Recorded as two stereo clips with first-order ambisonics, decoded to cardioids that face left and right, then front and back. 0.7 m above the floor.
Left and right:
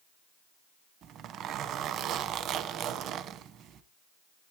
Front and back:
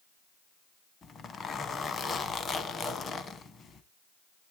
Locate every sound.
1.0 s a zipper: 60° right, 0.8 m